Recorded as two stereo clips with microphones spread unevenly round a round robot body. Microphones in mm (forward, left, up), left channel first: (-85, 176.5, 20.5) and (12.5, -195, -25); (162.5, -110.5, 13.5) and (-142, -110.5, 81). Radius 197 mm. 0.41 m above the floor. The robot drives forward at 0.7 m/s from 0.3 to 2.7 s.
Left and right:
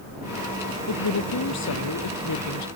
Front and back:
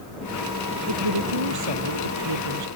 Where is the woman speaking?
150° left; by 2.7 s 155° left.